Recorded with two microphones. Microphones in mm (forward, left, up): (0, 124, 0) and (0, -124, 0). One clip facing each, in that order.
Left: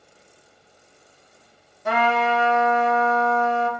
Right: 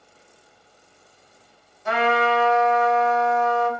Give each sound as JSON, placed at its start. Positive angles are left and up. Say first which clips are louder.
{"t": 1.9, "sound": "a trumpet", "louder": "right 1 dB", "side_deg": 70, "distance_m": 0.8}